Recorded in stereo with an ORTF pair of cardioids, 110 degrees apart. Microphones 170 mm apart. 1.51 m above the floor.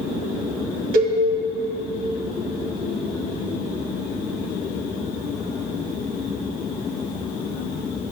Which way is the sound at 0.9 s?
65° right.